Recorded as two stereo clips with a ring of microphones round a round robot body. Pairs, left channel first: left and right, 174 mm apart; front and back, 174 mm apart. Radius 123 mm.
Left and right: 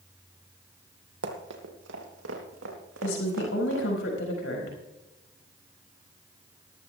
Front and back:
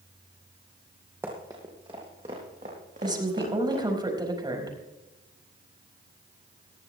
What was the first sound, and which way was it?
Running footsteps, 100° right.